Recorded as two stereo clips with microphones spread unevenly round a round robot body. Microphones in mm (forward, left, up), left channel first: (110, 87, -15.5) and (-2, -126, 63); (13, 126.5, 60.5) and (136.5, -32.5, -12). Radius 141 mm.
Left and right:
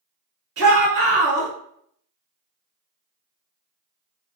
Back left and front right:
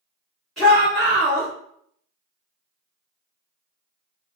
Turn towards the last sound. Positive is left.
turn(degrees=-120)